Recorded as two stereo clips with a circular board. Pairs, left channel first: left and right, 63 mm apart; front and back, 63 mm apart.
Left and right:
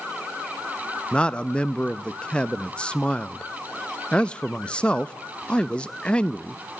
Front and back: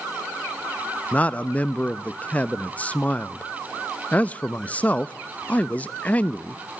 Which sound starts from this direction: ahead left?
A man speaking, at 1.1 s.